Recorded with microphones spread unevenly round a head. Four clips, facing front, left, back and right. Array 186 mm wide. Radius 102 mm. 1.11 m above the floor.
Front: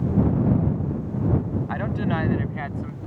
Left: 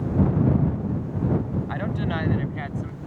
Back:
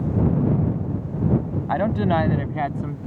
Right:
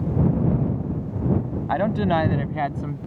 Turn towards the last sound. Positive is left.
turn(degrees=-135)